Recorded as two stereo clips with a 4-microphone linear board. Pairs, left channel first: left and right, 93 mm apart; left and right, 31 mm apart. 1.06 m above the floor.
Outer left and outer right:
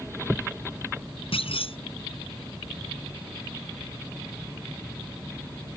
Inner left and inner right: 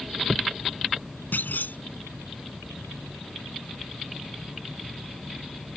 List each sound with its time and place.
1.3 s a clunk: 80° left